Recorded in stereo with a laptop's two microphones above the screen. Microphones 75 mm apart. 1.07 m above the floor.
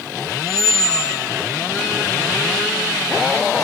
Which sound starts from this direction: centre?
A squeak, at 0.5 s.